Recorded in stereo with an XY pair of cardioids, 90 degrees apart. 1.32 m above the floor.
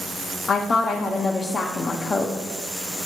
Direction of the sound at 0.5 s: 40° left.